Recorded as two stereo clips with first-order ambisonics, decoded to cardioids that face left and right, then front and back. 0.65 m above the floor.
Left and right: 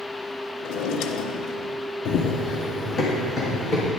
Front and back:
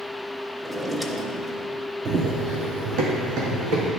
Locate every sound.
0.6 s a drawer: 100° left, 0.6 m
2.0 s running footsteps: 125° left, 0.9 m; by 3.9 s 175° left, 2.5 m